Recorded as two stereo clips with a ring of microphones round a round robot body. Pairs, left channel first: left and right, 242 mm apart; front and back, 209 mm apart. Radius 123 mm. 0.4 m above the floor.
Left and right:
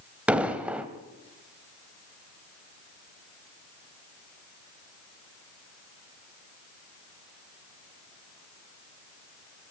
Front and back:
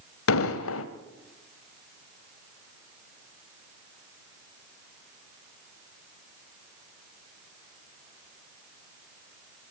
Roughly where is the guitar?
No guitar in this recording.